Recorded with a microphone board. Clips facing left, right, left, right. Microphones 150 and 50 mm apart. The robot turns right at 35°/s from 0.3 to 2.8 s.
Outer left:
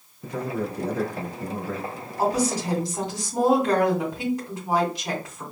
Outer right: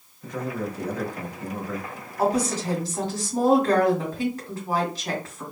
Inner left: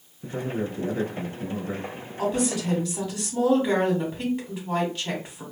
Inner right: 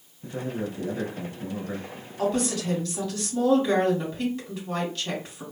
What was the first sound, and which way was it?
A man speaking, 70° left.